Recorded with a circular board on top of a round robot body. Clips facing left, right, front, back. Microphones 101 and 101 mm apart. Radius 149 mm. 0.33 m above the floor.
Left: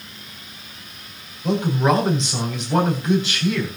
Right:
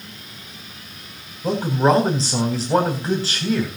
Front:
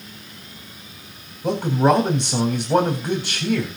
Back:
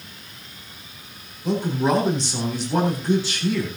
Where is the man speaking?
35° right, 3.5 m.